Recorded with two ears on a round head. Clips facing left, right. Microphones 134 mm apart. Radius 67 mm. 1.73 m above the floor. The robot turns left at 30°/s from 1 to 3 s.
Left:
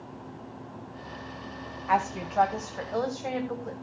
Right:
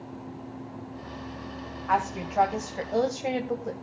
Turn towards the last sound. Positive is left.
turn(degrees=-25)